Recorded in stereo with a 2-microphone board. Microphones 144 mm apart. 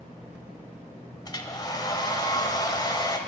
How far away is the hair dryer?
About 0.6 m.